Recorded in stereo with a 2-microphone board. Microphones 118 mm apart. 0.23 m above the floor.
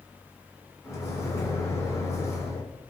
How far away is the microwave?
About 1.4 m.